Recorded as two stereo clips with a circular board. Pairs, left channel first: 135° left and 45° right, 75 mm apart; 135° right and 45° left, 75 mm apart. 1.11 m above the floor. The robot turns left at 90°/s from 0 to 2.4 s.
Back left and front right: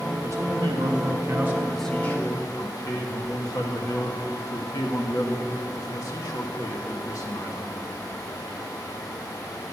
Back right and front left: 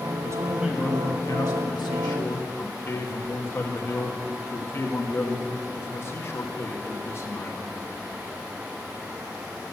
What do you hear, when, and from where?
0.2 s a man speaking: 5° left, 1.4 m; by 7.7 s 170° left, 1.4 m